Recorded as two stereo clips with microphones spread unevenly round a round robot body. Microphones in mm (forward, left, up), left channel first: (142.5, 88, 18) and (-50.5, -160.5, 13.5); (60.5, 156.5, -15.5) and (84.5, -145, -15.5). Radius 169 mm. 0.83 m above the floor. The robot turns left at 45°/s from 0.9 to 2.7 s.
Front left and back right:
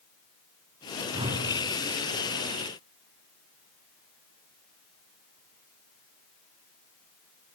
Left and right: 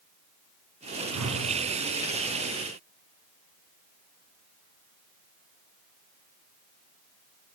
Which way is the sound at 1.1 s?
50° right.